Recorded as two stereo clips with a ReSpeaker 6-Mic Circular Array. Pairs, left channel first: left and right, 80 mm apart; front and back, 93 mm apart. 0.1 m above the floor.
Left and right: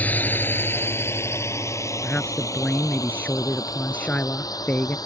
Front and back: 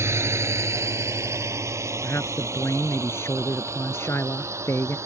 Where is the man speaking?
35° left.